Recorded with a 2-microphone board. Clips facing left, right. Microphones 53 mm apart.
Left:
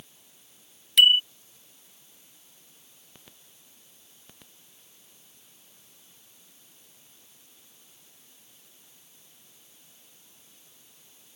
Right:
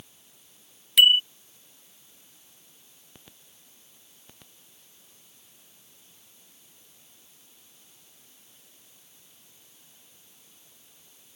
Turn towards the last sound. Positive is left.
turn(degrees=-5)  # may be behind; listen again after turning